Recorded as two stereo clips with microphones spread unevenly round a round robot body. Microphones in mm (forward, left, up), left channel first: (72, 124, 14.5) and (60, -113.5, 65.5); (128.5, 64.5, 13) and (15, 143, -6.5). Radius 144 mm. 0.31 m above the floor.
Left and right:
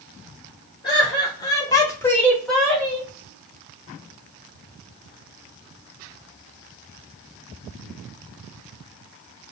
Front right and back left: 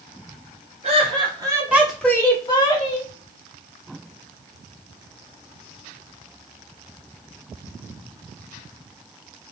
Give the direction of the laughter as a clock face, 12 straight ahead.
7 o'clock.